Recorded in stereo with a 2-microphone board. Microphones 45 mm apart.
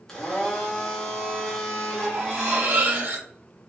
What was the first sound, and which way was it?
A blender, 10° left (ahead or behind).